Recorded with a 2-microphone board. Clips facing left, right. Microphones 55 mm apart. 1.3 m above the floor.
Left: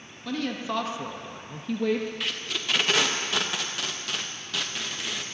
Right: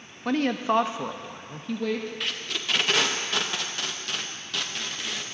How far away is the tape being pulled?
About 0.6 m.